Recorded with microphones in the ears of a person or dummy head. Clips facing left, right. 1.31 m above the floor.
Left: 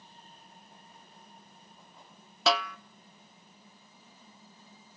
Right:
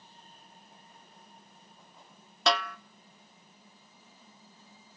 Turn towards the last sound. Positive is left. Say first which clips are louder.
# left 1 dB
turn(degrees=0)  # may be behind; listen again after turning